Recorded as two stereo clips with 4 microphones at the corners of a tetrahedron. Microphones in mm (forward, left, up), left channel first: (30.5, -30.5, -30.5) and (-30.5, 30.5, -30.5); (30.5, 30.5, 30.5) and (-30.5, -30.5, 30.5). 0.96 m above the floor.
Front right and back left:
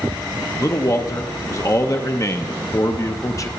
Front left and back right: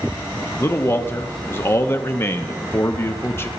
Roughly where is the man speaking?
Ahead.